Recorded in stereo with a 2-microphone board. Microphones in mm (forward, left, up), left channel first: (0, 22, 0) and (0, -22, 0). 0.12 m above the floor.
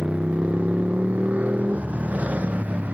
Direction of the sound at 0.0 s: 30° right (ahead or behind).